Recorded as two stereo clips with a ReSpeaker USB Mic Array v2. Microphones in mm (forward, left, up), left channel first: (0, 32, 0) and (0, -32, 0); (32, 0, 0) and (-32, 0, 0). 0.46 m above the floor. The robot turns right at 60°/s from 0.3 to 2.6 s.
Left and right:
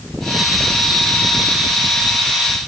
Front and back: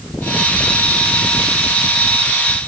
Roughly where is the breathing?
No breathing in this recording.